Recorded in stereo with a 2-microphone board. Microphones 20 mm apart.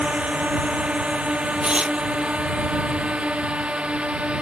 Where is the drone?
80° right; by 4.4 s 65° right (ahead or behind).